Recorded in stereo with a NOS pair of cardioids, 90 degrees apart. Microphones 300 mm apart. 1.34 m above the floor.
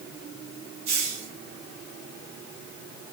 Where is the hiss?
60° right, 2.5 m.